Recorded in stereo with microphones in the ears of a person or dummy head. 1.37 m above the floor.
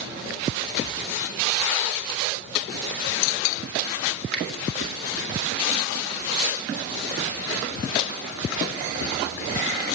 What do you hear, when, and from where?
4.3 s a finger snap: 5° left (ahead or behind), 2.5 m